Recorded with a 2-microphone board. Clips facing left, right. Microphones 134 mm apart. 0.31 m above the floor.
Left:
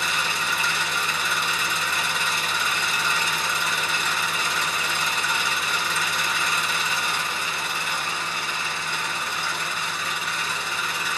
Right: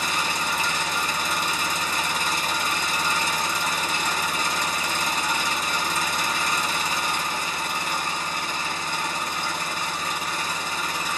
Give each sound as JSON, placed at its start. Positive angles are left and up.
{"t": 0.0, "sound": "an engine running", "side_deg": -40, "distance_m": 0.9}